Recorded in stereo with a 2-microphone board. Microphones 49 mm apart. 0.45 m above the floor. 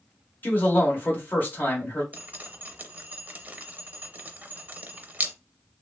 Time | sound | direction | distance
0.4 | a man speaking | 40° left (ahead or behind) | 1.6 m
2.1 | dripping | 30° right (ahead or behind) | 0.5 m